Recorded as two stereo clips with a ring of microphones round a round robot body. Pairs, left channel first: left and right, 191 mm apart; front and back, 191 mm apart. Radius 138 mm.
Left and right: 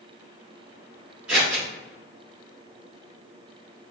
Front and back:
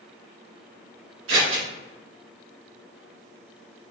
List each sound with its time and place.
1.3 s scissors: 175° right, 1.8 m